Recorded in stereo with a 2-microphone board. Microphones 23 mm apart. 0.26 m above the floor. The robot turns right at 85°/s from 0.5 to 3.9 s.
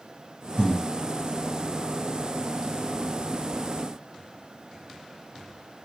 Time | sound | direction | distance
0.6 | breathing | 45° left (ahead or behind) | 0.9 m